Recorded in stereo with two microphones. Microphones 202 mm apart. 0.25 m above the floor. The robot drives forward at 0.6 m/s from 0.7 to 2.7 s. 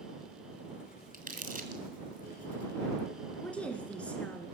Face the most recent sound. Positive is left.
turn(degrees=5)  # may be behind; listen again after turning